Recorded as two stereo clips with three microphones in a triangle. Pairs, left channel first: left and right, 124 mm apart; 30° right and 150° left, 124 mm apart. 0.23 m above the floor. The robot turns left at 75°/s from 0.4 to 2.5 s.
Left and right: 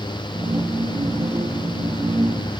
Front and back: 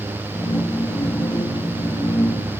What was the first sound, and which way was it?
Only background noise.